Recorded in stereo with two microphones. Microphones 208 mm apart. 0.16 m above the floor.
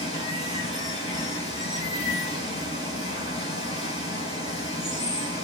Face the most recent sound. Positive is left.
turn(degrees=30)  # may be behind; listen again after turning